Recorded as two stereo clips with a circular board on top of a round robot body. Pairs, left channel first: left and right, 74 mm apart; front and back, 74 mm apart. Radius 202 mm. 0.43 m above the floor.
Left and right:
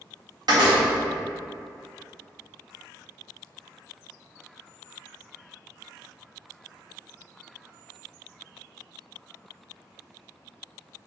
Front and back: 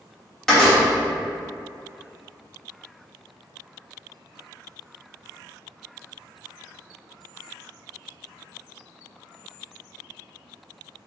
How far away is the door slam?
About 1.9 m.